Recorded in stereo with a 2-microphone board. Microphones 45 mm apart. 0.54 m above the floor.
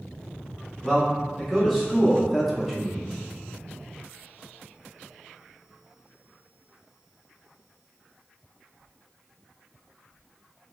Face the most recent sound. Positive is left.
turn(degrees=0)  # may be behind; listen again after turning